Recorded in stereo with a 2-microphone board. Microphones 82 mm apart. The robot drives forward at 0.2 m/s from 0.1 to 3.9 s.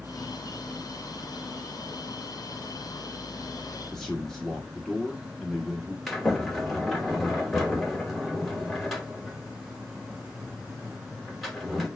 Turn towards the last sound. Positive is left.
turn(degrees=0)  # may be behind; listen again after turning